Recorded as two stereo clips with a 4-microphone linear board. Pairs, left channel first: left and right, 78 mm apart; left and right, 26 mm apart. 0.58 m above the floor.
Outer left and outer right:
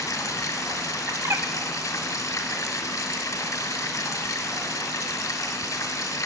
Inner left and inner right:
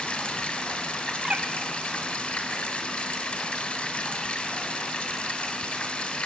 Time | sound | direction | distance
0.0 | running water | 50° left (ahead or behind) | 1.6 m
1.1 | a bird | 45° right (ahead or behind) | 1.1 m